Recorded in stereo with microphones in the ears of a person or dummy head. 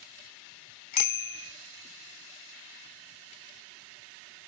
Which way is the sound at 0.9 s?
50° left (ahead or behind).